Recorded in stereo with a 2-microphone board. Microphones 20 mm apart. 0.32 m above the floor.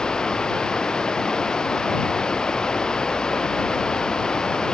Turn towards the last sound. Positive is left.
turn(degrees=40)  # may be behind; listen again after turning